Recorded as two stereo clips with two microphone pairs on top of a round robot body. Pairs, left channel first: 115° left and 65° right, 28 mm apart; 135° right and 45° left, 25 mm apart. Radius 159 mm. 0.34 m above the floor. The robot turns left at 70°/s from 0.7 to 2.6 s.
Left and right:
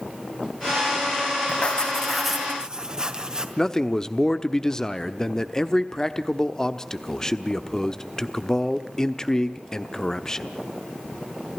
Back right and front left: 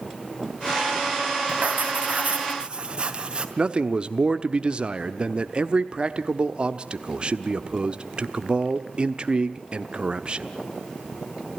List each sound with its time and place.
1.5 s writing: 70° left, 3 m; by 3.5 s 5° right, 3 m
3.6 s a man speaking: 45° left, 1.2 m